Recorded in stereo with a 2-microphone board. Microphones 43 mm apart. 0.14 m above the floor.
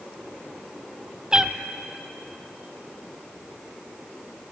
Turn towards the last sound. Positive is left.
turn(degrees=-20)  # may be behind; listen again after turning